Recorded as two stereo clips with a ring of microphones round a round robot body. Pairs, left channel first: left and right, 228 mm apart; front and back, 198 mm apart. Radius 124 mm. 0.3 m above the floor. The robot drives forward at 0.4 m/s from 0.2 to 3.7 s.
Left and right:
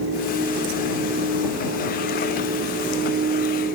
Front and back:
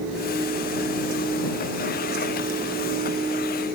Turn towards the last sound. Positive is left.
No sound to turn to.